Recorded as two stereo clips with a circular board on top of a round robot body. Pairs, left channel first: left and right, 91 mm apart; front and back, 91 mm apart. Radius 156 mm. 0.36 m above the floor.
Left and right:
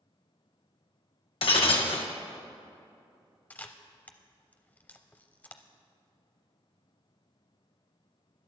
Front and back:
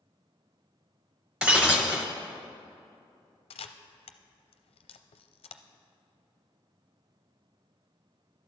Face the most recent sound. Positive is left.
turn(degrees=15)